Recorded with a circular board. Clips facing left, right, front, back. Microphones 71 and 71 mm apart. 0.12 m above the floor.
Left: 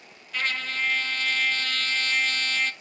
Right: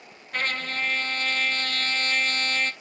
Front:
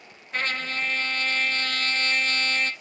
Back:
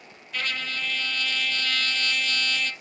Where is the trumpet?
50° right, 0.7 m.